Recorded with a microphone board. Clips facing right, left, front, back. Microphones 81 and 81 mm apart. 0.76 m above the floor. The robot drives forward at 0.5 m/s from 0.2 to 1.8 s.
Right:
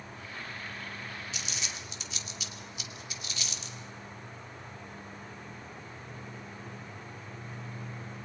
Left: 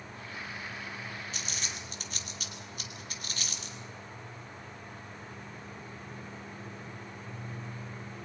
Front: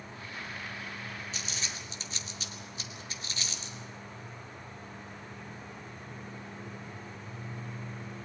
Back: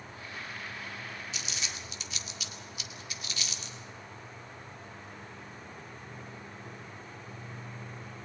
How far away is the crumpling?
About 2.5 m.